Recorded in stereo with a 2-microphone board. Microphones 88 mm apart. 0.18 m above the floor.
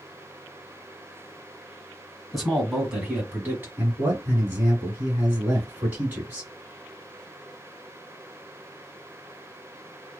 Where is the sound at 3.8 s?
25° right (ahead or behind), 1.8 m.